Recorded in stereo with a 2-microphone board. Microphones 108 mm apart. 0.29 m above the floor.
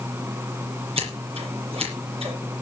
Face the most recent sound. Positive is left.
turn(degrees=-60)  # may be behind; listen again after turning